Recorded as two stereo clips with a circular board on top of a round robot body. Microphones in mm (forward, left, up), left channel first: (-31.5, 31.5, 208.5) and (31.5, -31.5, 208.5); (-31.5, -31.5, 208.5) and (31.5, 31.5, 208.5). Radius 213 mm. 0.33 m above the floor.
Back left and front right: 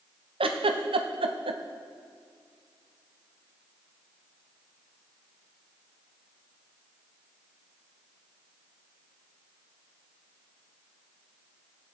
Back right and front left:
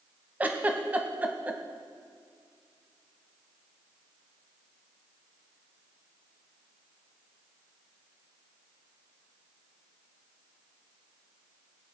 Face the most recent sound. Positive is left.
turn(degrees=-30)